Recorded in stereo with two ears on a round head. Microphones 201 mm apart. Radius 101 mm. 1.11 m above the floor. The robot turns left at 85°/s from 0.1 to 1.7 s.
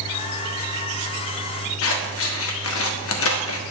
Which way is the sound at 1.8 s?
65° left (ahead or behind).